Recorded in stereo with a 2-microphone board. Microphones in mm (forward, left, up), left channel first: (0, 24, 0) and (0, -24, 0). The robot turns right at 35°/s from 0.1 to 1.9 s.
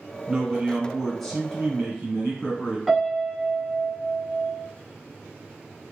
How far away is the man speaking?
About 1.3 m.